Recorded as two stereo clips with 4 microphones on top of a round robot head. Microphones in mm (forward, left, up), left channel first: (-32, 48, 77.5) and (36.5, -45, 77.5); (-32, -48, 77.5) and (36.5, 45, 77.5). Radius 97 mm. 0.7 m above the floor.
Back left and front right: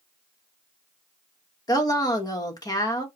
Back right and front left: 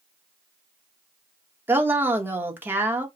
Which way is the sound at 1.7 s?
115° left.